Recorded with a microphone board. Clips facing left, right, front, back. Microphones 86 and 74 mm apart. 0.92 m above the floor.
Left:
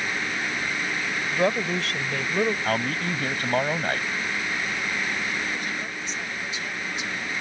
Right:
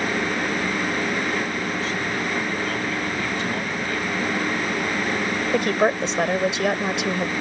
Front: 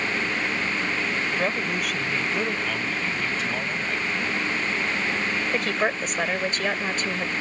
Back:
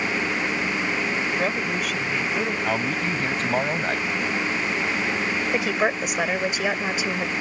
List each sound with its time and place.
1.3 s a woman speaking: 90° left
2.6 s a man speaking: 135° left
5.5 s a woman speaking: 100° right